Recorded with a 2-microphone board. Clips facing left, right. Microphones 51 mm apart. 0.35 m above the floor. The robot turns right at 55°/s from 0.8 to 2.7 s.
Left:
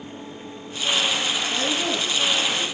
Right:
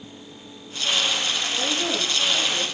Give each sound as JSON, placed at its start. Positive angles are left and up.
{"t": 1.5, "sound": "a woman speaking", "azimuth_deg": 150, "distance_m": 9.5}